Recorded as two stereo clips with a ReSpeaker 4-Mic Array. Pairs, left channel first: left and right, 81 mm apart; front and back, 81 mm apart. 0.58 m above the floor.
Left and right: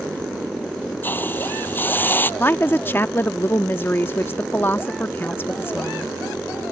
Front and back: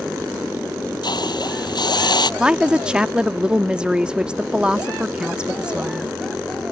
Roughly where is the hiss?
Ahead left.